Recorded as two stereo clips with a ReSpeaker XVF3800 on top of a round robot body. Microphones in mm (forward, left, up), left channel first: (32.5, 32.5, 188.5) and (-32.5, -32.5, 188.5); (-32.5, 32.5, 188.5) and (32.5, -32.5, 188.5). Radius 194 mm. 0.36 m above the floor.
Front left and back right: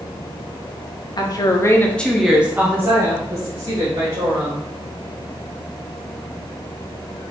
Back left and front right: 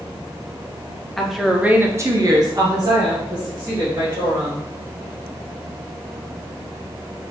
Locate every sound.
1.2 s a woman speaking: 50° left, 1.1 m; by 4.7 s 90° right, 2.5 m